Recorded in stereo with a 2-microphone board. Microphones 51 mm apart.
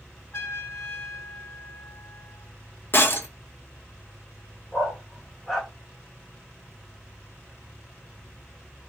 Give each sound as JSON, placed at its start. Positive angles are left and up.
{"t": 0.3, "sound": "a trumpet", "side_deg": 65, "distance_m": 1.4}
{"t": 2.9, "sound": "breaking glass", "side_deg": 50, "distance_m": 0.7}
{"t": 4.7, "sound": "a dog barking", "side_deg": 5, "distance_m": 1.0}